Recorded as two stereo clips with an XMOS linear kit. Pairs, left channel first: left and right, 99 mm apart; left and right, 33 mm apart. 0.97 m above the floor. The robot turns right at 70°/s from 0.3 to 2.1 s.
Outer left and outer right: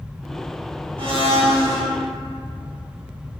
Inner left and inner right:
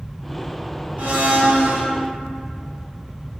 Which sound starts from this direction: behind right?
A blender, at 1.0 s.